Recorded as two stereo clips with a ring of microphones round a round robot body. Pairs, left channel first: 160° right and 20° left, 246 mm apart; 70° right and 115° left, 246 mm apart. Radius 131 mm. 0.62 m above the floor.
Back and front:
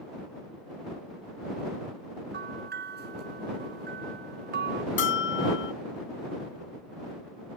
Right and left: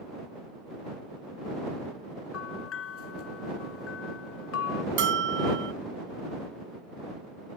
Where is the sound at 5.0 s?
160° left.